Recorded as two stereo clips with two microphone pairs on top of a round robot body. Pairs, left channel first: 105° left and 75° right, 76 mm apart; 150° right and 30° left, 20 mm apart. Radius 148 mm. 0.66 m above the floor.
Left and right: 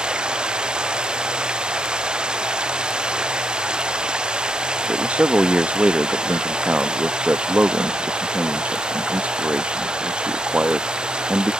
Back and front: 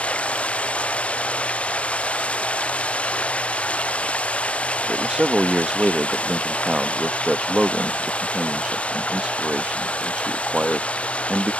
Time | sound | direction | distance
0.0 | running water | 150° right | ?
4.9 | a man speaking | 10° right | ?